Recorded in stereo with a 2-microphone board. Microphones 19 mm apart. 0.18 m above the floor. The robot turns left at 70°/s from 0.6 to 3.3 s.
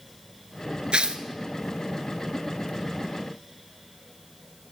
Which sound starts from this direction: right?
Tearing paper, at 0.9 s.